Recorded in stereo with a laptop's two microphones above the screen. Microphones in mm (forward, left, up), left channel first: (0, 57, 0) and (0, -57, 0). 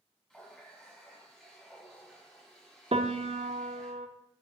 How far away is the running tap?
About 4.5 m.